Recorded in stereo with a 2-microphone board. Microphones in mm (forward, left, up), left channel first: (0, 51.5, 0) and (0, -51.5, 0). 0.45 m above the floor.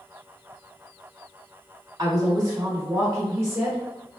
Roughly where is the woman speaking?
Right.